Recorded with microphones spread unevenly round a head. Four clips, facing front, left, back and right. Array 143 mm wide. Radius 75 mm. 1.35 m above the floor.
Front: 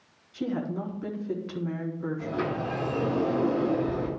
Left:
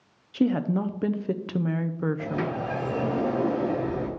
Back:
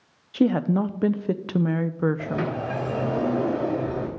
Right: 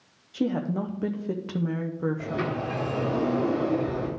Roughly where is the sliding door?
Behind.